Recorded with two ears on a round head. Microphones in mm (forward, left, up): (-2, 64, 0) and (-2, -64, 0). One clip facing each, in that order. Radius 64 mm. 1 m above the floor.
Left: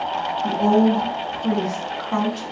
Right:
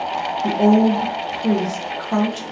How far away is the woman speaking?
About 0.9 m.